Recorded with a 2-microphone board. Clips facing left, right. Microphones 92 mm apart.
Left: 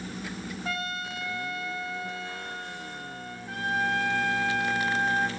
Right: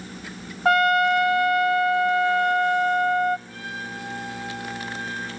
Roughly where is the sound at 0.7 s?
Right.